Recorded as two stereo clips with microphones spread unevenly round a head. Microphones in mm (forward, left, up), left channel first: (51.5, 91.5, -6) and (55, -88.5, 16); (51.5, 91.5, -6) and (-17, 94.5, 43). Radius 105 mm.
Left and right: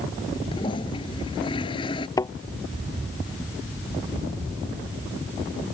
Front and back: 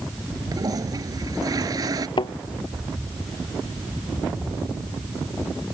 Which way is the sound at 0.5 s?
160° left.